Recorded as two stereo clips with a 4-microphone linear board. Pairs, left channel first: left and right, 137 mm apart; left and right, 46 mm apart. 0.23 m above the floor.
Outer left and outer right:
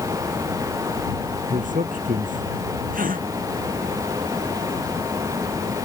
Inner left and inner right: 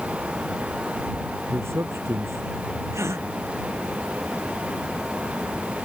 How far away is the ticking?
No ticking in this recording.